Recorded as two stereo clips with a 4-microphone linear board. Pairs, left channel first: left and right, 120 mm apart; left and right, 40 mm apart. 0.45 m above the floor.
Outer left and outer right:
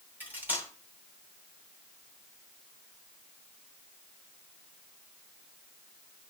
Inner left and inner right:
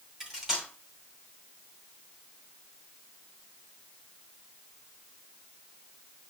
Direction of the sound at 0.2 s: 15° right (ahead or behind).